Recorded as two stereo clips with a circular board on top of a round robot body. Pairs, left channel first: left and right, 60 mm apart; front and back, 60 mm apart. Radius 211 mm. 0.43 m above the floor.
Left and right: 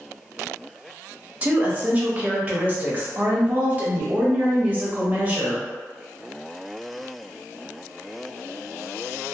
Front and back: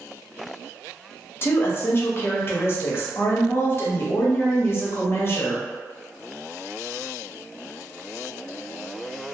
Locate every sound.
1.4 s a woman speaking: 35° right, 1.1 m